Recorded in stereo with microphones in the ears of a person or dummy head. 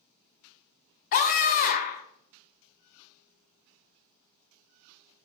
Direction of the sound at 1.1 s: 45° left (ahead or behind).